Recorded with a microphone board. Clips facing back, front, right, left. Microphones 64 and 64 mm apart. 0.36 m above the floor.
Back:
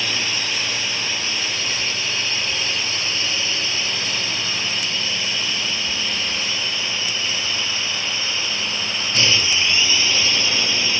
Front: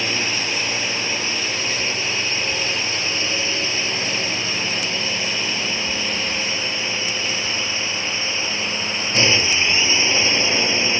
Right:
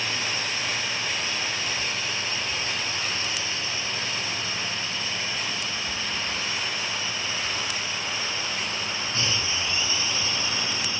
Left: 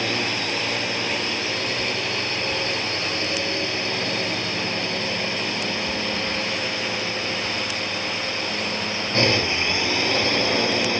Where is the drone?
65° left.